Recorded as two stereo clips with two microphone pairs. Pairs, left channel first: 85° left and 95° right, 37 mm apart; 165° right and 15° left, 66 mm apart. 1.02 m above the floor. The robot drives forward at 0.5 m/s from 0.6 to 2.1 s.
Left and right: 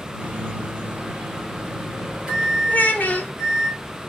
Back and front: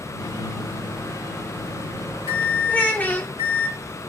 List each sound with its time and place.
0.2 s a microwave: 145° right, 0.6 m; by 3.7 s 165° right, 1.2 m
2.7 s a child speaking: 130° left, 0.5 m